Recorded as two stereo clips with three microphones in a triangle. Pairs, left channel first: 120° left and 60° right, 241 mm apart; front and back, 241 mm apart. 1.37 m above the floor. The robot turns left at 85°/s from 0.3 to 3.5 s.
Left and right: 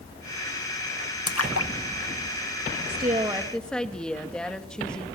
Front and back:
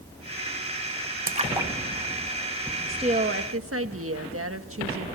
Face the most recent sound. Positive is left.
turn(degrees=-155)